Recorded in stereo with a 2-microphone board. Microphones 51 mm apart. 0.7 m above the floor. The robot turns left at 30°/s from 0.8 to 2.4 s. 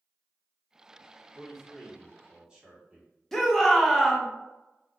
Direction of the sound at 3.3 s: 5° left (ahead or behind).